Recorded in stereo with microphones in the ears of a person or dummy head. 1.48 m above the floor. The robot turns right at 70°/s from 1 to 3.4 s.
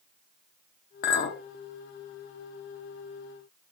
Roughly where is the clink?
Left.